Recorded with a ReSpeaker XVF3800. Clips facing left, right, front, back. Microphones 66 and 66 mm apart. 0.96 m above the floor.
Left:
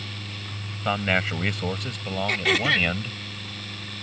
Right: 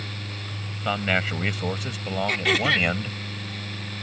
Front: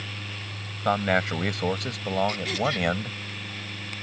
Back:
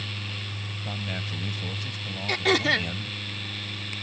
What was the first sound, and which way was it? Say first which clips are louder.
A man speaking: left 1 dB, front 14 dB; 5° left.